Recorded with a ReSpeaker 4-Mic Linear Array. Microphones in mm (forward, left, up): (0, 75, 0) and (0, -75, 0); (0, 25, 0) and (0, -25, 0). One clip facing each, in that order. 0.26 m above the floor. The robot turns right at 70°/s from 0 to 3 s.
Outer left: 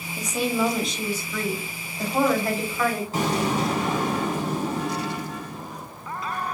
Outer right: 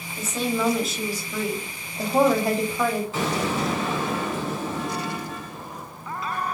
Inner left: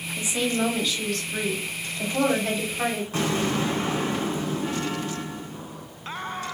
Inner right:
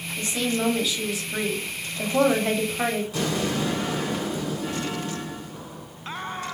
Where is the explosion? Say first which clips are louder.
Outer left 1 dB, inner left 1 dB; 40° left (ahead or behind), 1.9 m.